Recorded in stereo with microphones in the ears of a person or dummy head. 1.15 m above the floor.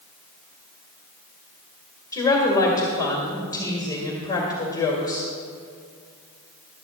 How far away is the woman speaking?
About 1.9 m.